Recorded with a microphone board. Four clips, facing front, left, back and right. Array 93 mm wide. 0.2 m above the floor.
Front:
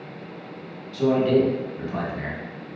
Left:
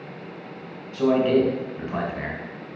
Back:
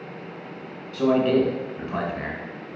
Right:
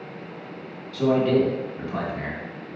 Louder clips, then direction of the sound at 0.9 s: Left 1 dB, even; 125° left.